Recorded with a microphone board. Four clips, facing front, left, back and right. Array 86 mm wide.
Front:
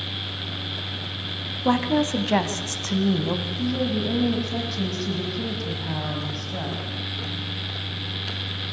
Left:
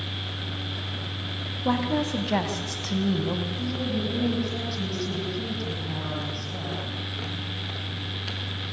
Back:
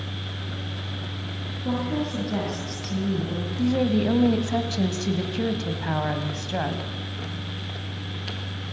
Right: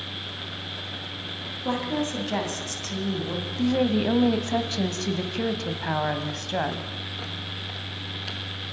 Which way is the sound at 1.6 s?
10° left.